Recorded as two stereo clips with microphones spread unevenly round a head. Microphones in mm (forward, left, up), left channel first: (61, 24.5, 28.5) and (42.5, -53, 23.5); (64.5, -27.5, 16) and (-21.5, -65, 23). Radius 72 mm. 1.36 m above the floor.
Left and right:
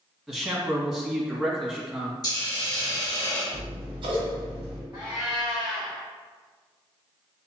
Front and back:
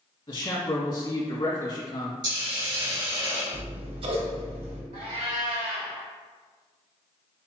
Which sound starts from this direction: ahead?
A man speaking, at 0.3 s.